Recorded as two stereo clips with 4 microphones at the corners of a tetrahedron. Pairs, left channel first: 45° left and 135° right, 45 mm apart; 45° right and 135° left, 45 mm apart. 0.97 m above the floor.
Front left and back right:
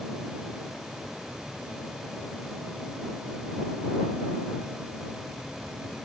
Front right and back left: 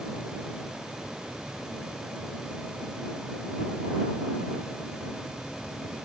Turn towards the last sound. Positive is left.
No sound to turn to.